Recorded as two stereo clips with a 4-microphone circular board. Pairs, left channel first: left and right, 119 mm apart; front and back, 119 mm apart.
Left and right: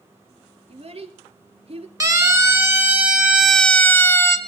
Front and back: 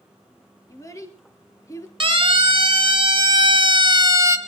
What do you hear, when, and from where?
0.7 s a child speaking: 60° right, 2.5 m
2.0 s a siren: 145° right, 2 m; by 4.4 s 140° left, 1.4 m